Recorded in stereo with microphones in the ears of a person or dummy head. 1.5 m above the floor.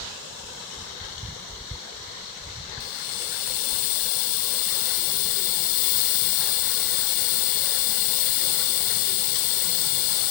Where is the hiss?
50° left (ahead or behind), 1.0 m.